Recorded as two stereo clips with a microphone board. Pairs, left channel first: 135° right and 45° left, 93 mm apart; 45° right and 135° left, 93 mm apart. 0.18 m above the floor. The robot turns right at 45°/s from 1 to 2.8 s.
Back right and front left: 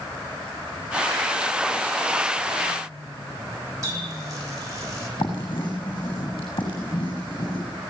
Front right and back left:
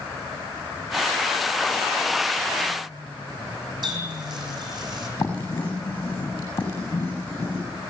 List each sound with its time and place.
3.8 s a running tap: 95° left, 6.5 m
5.2 s writing: 110° right, 7 m